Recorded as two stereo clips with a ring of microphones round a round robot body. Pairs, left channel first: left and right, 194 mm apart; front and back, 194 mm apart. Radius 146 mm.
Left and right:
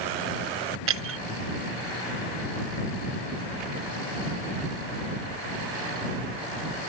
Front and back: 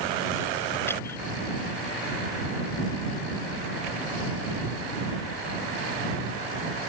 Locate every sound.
0.9 s breaking glass: 80° right